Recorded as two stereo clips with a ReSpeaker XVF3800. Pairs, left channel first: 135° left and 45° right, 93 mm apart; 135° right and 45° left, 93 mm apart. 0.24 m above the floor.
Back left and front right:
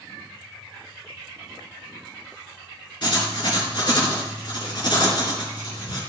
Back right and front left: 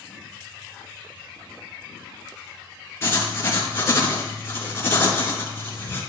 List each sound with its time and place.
3.0 s writing: 165° left, 4 m